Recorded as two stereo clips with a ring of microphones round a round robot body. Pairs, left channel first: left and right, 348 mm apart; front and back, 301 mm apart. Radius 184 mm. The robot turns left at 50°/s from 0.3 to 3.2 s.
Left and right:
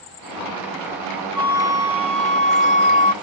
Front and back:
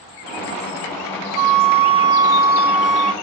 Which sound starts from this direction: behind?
A flute, at 1.4 s.